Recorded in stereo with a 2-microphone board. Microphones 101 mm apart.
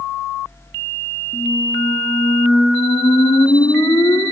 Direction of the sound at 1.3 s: 40° left (ahead or behind).